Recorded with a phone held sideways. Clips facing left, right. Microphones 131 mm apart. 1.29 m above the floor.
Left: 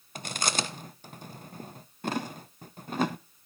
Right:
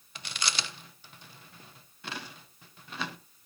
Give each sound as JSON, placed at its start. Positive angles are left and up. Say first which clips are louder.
{"t": 0.1, "sound": "chewing", "louder": "left 5 dB", "side_deg": 45, "distance_m": 0.5}